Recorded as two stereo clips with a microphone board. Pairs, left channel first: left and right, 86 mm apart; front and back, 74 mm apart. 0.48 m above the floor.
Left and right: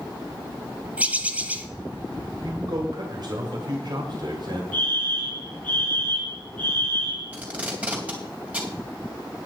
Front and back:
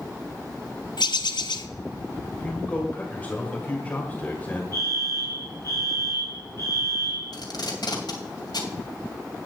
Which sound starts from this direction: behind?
A fire alarm, at 4.7 s.